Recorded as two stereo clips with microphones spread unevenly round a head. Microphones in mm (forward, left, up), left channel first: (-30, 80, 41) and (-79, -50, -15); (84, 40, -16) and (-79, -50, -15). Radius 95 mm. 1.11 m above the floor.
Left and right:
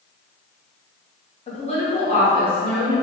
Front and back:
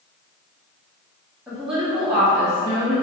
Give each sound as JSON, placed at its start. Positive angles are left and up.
{"t": 1.5, "sound": "a woman speaking", "azimuth_deg": 125, "distance_m": 1.1}